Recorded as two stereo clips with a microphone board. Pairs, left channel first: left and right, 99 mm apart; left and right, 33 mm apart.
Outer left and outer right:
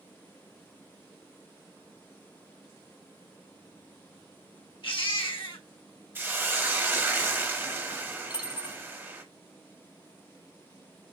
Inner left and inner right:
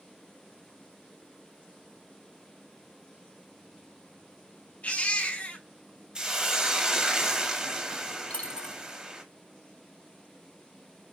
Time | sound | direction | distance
4.8 | a baby crying | 55° left (ahead or behind) | 1.0 m
6.2 | a hiss | 20° right (ahead or behind) | 0.8 m
8.3 | a dropped coin | 45° left (ahead or behind) | 1.6 m